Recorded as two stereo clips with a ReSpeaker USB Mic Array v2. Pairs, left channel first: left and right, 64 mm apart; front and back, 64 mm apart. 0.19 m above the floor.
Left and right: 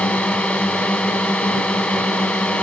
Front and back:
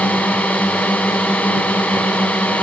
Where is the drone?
35° left.